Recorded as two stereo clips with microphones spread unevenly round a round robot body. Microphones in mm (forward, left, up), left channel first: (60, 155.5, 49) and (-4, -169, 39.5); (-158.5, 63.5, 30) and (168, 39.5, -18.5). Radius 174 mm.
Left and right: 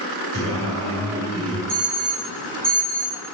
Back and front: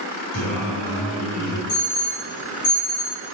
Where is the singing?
150° right, 4 m.